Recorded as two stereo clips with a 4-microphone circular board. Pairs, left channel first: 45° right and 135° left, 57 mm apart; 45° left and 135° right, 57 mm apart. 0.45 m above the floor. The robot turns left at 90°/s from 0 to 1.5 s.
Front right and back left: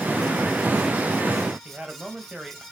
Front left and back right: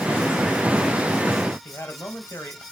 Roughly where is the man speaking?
Ahead left.